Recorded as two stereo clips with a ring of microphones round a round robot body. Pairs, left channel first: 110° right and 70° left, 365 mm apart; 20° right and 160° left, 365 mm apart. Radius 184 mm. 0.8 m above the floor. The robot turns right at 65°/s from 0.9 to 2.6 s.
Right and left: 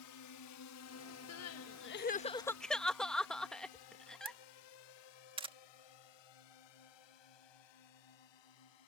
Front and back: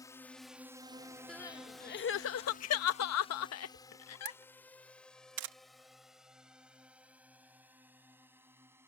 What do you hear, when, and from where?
0.0 s a drone: 100° right; by 8.9 s 120° right
1.3 s crying: 110° right; by 4.4 s 25° right
4.2 s a camera shutter: 140° left